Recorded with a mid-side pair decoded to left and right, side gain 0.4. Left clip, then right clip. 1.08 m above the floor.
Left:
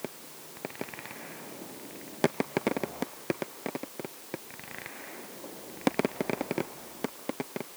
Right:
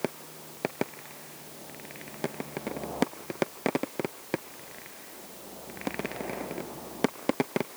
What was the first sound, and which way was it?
Only background noise.